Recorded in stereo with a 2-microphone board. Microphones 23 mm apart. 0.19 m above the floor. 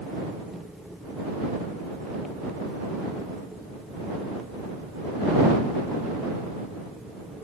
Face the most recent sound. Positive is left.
No sound to turn to.